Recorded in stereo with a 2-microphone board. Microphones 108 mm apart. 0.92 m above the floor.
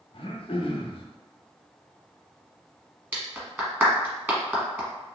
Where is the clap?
20° right (ahead or behind), 1.0 m.